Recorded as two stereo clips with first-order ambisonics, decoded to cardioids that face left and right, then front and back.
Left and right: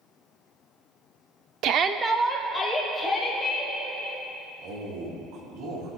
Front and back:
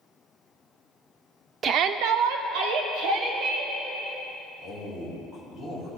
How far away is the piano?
I don't hear a piano.